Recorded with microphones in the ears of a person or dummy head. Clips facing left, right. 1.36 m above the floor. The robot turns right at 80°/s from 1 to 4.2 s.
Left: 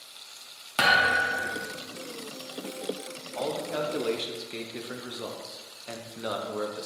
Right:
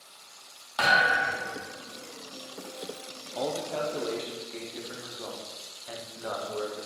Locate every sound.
0.8 s a thud: 140° left, 1.2 m; by 1.6 s 175° right, 1.2 m
3.4 s a man speaking: 20° right, 0.6 m; by 6.9 s 50° left, 0.6 m